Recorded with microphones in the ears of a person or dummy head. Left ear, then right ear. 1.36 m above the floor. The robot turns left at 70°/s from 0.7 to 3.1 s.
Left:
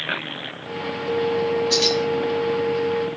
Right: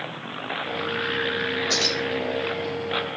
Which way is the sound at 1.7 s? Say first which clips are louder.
Left 3 dB; 60° right (ahead or behind).